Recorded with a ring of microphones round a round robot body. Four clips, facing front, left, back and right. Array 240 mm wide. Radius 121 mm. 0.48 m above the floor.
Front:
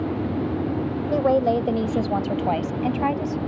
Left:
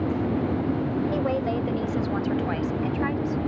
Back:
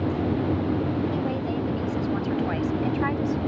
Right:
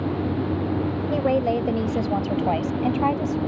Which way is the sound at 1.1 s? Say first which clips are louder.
Right 4 dB, front 8 dB; 20° right.